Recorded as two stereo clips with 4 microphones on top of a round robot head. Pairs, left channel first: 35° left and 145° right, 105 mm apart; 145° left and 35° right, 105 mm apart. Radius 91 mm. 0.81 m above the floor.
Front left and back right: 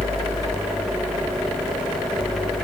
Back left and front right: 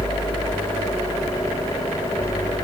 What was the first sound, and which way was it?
Only background noise.